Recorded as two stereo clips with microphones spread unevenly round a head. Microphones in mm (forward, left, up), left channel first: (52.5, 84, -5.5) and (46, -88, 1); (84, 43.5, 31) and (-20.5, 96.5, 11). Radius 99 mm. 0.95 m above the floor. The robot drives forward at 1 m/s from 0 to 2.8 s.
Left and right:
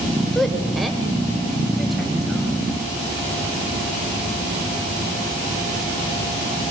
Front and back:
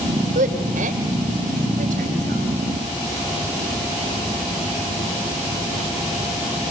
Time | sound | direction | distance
0.3 | a woman speaking | 175° left | 3 m